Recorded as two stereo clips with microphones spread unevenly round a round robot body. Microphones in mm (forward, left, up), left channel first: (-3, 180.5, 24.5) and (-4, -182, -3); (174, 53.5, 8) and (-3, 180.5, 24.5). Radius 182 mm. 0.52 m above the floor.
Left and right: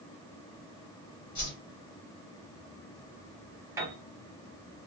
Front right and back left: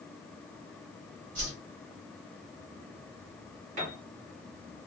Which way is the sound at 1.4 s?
155° left.